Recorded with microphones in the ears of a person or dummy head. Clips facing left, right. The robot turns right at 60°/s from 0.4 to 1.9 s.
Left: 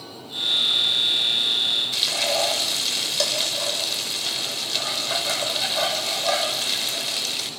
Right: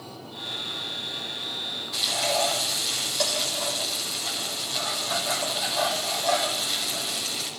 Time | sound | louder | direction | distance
1.9 | frying | left 1 dB | 40° left (ahead or behind) | 5 m